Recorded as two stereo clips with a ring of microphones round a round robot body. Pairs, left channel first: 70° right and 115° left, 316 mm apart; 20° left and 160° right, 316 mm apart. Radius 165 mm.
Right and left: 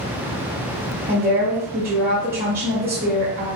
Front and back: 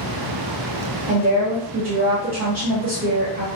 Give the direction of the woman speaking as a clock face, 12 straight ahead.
7 o'clock.